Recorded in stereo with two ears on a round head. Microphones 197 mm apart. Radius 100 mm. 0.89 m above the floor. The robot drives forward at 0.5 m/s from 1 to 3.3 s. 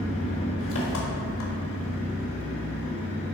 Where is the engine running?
65° left (ahead or behind), 1.5 m; by 3.4 s 50° left (ahead or behind), 1.7 m.